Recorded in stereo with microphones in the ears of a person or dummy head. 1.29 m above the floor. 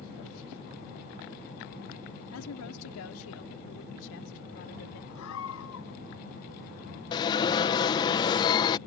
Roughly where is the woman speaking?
Left.